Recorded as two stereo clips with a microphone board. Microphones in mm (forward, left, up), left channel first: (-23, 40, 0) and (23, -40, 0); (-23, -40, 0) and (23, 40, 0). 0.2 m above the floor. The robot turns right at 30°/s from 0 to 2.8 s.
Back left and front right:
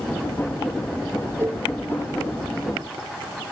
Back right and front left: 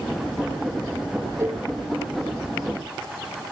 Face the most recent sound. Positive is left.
turn(degrees=45)